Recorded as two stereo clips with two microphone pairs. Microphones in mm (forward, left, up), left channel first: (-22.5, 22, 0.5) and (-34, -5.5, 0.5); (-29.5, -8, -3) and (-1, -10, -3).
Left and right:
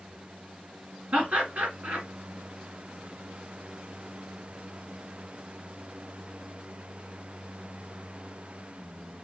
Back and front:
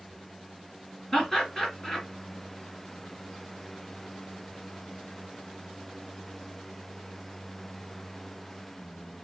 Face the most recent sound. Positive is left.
turn(degrees=-120)